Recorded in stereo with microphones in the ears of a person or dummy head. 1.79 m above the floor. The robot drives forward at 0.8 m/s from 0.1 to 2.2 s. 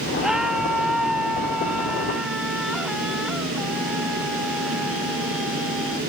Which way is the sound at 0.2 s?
Centre (ahead or behind).